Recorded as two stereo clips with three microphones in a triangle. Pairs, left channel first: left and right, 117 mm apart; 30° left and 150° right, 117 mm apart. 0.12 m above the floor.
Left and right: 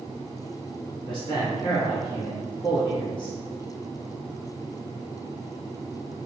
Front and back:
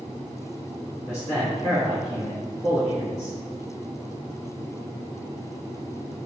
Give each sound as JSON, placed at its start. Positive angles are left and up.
{"t": 1.1, "sound": "a man speaking", "azimuth_deg": 75, "distance_m": 1.6}